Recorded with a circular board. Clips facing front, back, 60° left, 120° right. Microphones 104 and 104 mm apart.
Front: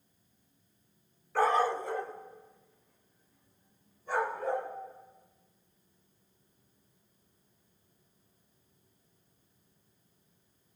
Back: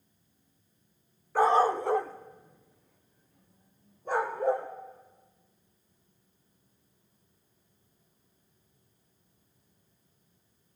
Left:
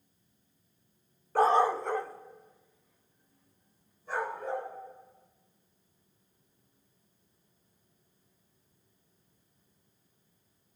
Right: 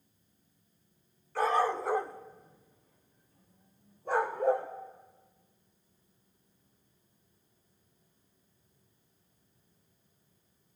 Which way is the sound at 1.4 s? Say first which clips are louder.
Back 4 dB, left 4 dB; 105° left.